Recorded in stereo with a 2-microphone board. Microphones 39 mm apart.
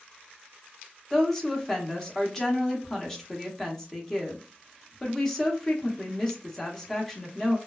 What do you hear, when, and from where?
1.1 s a woman speaking: 10° left (ahead or behind), 0.8 m